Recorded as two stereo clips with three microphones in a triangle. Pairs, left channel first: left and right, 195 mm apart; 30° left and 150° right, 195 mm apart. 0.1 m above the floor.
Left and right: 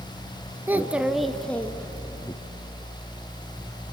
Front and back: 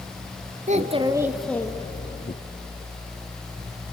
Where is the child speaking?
165° right, 1.1 m; by 2.3 s 25° left, 1.2 m.